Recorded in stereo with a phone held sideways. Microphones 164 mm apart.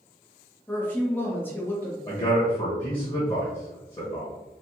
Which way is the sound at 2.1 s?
25° left (ahead or behind).